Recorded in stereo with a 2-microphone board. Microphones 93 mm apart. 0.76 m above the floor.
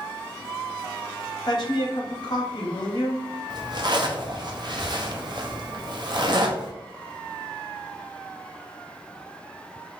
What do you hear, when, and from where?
1.5 s a woman speaking: 45° left (ahead or behind), 1.6 m
3.5 s a zipper: 50° right (ahead or behind), 0.7 m